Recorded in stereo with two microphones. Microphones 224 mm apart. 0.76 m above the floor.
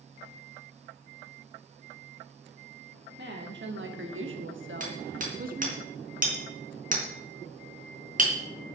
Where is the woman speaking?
50° right (ahead or behind), 1.9 m; by 5.8 s 35° right (ahead or behind), 1.7 m.